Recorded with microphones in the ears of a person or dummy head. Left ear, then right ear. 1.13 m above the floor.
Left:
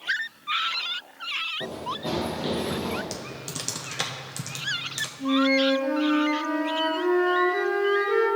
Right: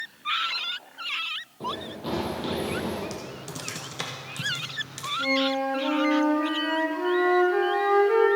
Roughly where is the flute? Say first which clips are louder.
Left 3 dB; right.